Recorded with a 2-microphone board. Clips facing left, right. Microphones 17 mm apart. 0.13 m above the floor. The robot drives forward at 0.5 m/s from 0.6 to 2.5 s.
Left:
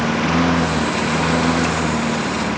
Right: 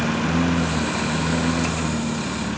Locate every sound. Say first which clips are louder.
0.0 s a lawn mower: left 4 dB; 40° left (ahead or behind); by 2.6 s 65° left (ahead or behind)